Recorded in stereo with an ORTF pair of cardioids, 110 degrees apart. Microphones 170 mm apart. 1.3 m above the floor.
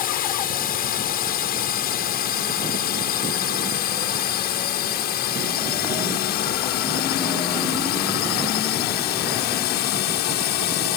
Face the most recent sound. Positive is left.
turn(degrees=80)